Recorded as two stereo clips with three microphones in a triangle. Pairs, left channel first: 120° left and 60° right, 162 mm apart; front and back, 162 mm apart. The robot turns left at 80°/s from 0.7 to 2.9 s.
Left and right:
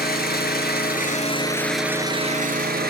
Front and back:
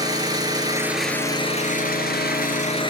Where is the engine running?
115° left, 1.6 m; by 2.9 s 60° right, 1.6 m.